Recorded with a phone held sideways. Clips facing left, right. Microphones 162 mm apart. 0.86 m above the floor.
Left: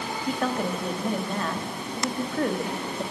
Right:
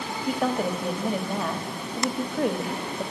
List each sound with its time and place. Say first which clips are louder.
0.3 s a woman speaking: right 2 dB; 10° right (ahead or behind), 1.2 m